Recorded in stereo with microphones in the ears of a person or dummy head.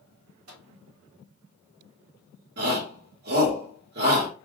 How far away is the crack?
I don't hear a crack.